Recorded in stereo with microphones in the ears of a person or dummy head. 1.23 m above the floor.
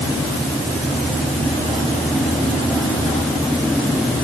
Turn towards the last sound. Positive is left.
No sound to turn to.